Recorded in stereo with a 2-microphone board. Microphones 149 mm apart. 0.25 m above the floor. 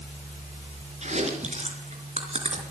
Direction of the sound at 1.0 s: 50° right (ahead or behind).